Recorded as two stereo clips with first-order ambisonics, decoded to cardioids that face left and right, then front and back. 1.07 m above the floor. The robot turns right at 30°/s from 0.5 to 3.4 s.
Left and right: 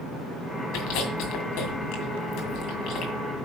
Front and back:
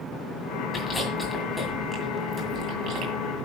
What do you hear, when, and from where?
0.7 s chewing: 75° left, 2 m; by 3.1 s 145° left, 2 m